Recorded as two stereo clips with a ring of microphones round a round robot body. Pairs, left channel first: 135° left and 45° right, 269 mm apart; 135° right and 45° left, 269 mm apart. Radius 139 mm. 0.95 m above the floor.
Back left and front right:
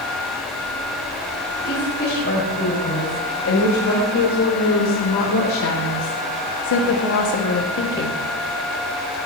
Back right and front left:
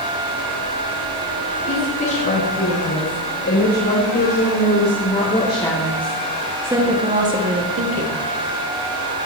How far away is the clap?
I don't hear a clap.